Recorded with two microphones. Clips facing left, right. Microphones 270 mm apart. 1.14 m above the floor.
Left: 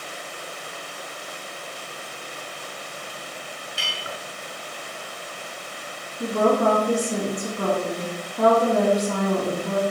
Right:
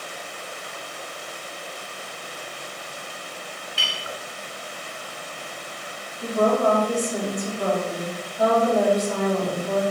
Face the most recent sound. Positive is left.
turn(degrees=70)  # may be behind; listen again after turning